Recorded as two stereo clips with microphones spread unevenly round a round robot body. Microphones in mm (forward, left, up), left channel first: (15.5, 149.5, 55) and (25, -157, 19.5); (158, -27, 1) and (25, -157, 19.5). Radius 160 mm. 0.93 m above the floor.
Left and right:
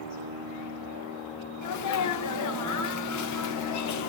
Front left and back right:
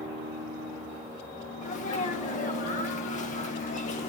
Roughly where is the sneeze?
Left.